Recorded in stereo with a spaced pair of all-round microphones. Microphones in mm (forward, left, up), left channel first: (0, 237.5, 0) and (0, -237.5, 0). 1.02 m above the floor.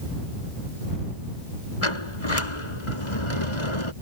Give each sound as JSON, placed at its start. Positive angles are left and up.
{"t": 1.8, "sound": "a sliding door", "side_deg": 75}